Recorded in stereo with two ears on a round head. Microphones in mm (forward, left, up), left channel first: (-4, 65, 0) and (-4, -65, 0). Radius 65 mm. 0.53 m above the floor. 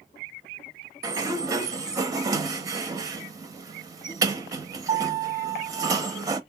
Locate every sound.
1.0 s a sliding door: 25° right (ahead or behind), 0.5 m